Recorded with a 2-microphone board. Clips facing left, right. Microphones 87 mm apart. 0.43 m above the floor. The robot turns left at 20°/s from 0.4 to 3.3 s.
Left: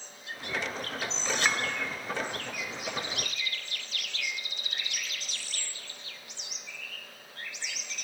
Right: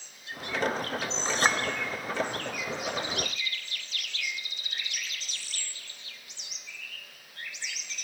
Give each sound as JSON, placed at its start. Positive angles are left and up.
{"t": 1.2, "sound": "a clink", "side_deg": -35, "distance_m": 0.8}